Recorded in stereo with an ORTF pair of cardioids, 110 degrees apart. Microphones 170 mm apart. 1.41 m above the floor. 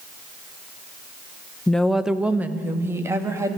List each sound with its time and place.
1.7 s a woman speaking: 5° left, 0.9 m; by 3.6 s 20° right, 2.5 m